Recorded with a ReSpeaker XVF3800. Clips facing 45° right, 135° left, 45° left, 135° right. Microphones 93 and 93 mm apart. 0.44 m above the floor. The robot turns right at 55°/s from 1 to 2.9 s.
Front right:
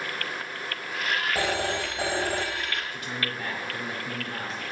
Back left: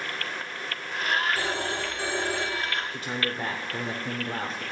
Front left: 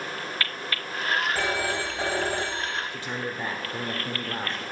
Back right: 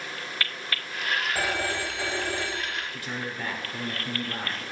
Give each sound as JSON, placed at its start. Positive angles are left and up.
{"t": 1.4, "sound": "a phone ringing", "azimuth_deg": -55, "distance_m": 1.4}
{"t": 2.9, "sound": "a man speaking", "azimuth_deg": 95, "distance_m": 0.9}